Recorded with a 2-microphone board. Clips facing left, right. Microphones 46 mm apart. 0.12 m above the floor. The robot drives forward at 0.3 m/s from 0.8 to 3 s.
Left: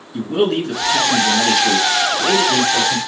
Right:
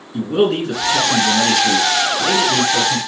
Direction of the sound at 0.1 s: 10° right (ahead or behind).